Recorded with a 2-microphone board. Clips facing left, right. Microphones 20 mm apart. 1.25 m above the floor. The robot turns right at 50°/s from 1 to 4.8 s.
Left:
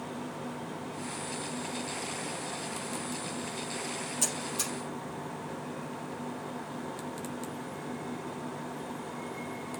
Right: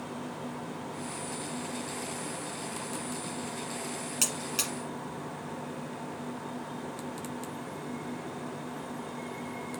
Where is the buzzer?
50° right (ahead or behind), 4.5 m; by 4.7 s 70° right (ahead or behind), 4.5 m.